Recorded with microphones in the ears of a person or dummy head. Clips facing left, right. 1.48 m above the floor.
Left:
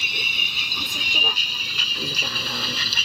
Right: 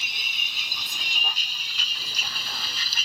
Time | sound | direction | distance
0.0 | a vehicle | 55° left (ahead or behind) | ?